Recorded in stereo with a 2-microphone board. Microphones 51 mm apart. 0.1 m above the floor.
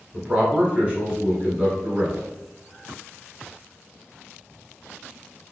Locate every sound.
0.1 s a man speaking: 25° right (ahead or behind), 1.2 m